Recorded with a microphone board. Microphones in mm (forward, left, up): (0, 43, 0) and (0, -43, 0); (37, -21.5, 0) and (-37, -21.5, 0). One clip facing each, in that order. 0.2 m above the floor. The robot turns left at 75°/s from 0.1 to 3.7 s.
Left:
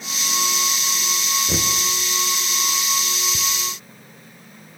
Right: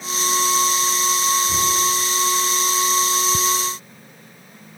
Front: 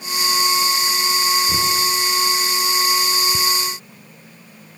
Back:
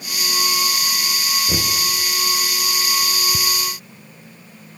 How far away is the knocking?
About 2 m.